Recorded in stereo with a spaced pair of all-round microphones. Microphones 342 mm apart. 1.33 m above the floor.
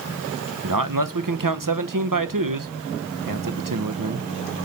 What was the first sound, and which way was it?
A man speaking, 65° right (ahead or behind).